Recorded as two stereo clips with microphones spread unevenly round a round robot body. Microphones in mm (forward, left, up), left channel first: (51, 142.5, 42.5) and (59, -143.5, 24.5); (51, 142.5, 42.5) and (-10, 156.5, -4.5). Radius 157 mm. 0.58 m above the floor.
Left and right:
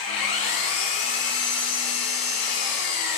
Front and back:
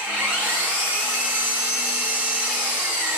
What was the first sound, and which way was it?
An engine running, 90° left.